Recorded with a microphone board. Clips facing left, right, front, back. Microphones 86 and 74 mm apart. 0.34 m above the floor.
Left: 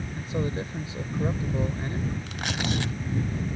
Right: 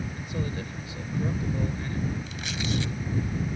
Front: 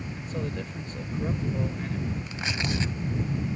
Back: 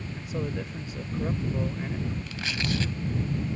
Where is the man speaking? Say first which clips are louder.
Left 7 dB, back 2 dB; 105° left.